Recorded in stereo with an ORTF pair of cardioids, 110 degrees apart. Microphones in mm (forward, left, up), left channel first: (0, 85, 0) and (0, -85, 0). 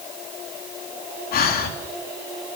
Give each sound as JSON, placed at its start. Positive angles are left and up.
{"t": 1.3, "sound": "breathing", "azimuth_deg": 65, "distance_m": 3.5}